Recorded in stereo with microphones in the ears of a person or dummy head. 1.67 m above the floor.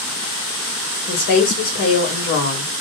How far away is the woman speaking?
About 1.6 m.